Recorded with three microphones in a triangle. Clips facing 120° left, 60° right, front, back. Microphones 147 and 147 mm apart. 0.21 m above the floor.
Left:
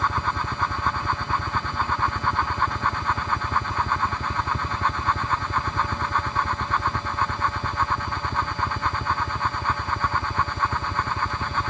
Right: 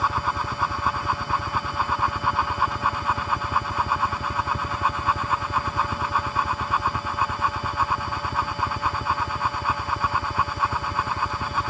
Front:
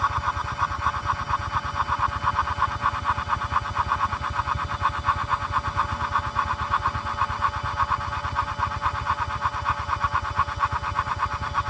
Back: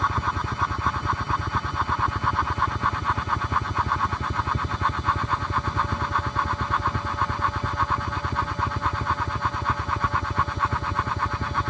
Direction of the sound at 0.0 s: 150° right.